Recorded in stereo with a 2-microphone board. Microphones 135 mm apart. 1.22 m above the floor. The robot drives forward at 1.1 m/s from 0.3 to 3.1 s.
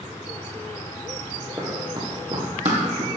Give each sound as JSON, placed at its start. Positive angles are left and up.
{"t": 1.6, "sound": "running footsteps", "side_deg": -25, "distance_m": 1.8}